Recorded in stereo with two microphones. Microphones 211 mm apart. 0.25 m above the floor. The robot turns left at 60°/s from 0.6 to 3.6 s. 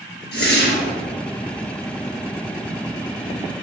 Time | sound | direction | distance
0.3 | a whoosh | 55° left (ahead or behind) | 3.5 m